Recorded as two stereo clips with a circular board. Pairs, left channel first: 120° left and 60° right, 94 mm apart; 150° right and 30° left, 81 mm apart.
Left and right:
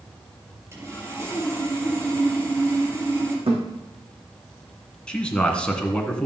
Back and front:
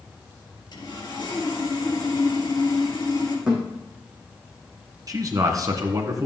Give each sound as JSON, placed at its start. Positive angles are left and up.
{"t": 0.7, "sound": "sawing", "azimuth_deg": -120, "distance_m": 4.5}
{"t": 3.5, "sound": "a thud", "azimuth_deg": -50, "distance_m": 5.0}
{"t": 5.1, "sound": "a man speaking", "azimuth_deg": 45, "distance_m": 1.9}